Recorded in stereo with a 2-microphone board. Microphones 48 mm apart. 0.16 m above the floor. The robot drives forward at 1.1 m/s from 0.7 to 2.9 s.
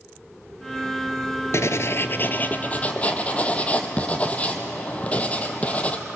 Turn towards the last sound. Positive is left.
turn(degrees=25)  # may be behind; listen again after turning